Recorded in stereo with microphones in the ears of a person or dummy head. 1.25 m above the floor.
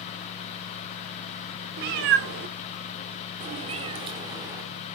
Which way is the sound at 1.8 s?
55° right (ahead or behind).